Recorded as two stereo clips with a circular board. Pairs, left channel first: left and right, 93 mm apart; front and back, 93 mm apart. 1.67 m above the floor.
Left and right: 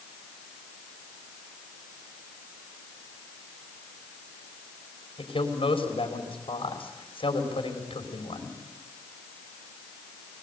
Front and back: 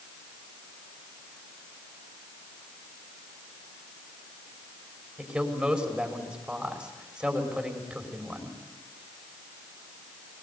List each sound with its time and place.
5.2 s a man speaking: 105° left, 4.5 m